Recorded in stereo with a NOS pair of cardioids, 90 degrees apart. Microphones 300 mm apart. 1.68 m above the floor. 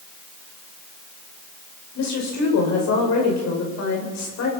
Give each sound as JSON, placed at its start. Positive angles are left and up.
{"t": 1.9, "sound": "a woman speaking", "azimuth_deg": 65, "distance_m": 7.5}